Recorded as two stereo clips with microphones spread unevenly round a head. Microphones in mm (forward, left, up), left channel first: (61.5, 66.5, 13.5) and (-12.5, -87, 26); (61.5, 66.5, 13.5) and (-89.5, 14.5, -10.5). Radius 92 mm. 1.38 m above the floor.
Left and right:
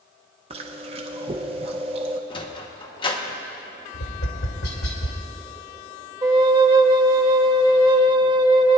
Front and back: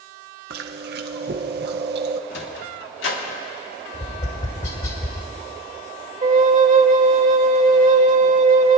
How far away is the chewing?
About 0.6 m.